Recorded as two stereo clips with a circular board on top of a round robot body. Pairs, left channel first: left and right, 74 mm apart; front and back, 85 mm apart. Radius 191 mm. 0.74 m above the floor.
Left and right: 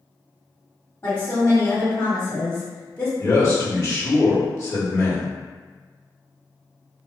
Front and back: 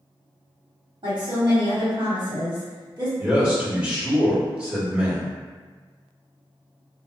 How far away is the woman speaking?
About 1.6 m.